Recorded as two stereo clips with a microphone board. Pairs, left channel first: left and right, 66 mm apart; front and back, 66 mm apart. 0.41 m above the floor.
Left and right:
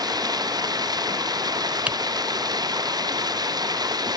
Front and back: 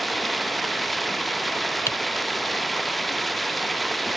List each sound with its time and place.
0.0 s running water: 90° right
1.9 s typing on a keyboard: 25° right